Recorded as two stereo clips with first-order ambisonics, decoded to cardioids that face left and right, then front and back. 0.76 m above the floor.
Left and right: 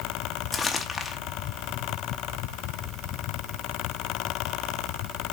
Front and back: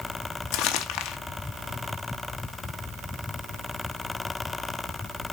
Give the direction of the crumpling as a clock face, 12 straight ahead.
11 o'clock.